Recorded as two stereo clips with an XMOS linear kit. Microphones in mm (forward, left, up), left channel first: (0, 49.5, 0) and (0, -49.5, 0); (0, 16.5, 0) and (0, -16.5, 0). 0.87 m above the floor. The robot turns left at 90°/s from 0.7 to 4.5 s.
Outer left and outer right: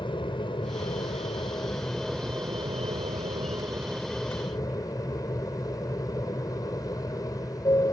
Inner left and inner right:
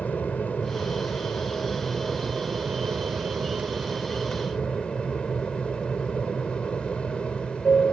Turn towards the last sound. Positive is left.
turn(degrees=140)